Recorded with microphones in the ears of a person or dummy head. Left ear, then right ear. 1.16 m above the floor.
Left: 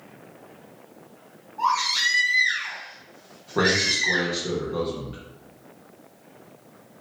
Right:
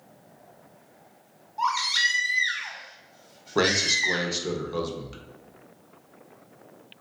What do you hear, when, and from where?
1.6 s a baby crying: 60° right (ahead or behind), 1.2 m
3.5 s a man speaking: 85° right, 0.9 m